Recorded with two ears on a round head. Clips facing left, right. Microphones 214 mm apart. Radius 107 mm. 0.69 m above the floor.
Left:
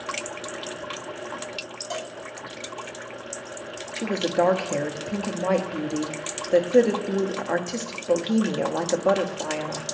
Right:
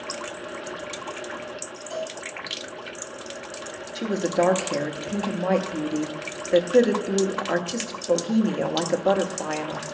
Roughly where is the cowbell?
Left.